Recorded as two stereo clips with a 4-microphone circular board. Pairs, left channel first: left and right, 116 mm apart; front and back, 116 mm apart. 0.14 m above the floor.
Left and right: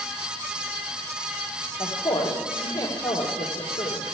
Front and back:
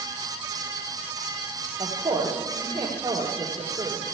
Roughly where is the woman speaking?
Behind left.